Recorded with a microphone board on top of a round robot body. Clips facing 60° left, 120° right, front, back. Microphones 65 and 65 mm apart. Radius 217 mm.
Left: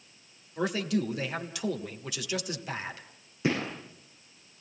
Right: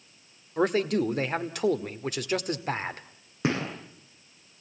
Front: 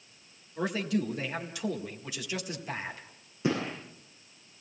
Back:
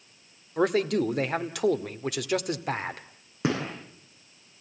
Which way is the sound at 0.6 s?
160° right.